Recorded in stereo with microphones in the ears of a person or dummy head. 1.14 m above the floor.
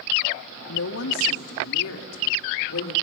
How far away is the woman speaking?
About 1.8 m.